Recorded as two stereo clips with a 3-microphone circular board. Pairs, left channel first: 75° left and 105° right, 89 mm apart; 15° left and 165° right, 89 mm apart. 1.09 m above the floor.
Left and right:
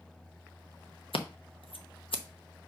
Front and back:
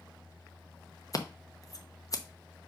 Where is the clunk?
I don't hear a clunk.